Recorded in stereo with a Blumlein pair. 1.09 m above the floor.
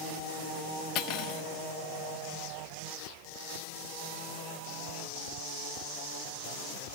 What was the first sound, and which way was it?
Cutlery clinking, 40° left.